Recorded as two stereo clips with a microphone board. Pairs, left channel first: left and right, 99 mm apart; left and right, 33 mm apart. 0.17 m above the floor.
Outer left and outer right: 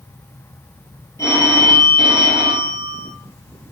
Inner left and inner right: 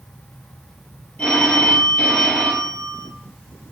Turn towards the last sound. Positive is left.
turn(degrees=35)  # may be behind; listen again after turning